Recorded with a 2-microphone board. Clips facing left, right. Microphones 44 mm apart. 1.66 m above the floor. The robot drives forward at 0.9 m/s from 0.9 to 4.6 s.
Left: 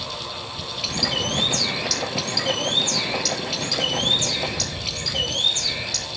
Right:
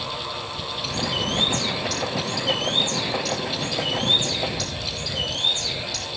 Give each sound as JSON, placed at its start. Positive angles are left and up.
{"t": 0.8, "sound": "a bird", "side_deg": 70, "distance_m": 3.5}